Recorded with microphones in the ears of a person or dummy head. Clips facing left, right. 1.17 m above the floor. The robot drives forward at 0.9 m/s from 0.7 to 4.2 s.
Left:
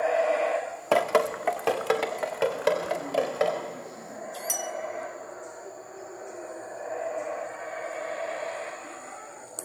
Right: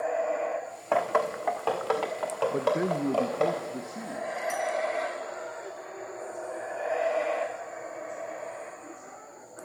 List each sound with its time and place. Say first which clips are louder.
0.9 s dripping: left 3 dB; 40° left (ahead or behind), 1.5 m; by 3.5 s 15° left (ahead or behind), 3.5 m
2.5 s a man speaking: even; 80° right, 1.0 m; by 4.3 s 35° right (ahead or behind), 1.7 m
4.5 s a bell: right 5 dB; 50° left (ahead or behind), 1.5 m